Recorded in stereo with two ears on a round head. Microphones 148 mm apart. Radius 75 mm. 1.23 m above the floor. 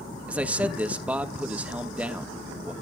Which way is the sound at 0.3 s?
10° right (ahead or behind).